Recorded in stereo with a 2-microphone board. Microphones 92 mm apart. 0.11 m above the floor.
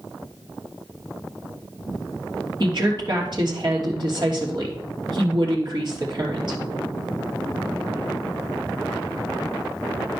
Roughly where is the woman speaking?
Right.